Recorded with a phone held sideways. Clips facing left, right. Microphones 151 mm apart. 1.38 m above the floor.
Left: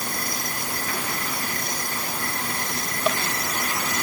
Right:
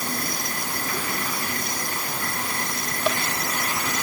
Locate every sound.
Only background noise.